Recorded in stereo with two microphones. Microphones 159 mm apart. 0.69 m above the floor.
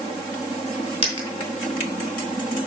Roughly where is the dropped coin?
Left.